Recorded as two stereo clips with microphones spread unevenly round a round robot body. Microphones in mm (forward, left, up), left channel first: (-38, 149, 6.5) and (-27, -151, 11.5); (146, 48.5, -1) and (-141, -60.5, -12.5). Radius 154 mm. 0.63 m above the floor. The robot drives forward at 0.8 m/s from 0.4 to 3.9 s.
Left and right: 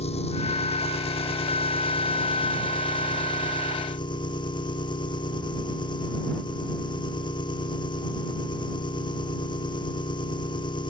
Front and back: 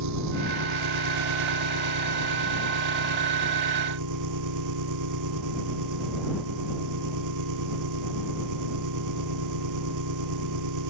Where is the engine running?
165° left; by 10.9 s 170° left.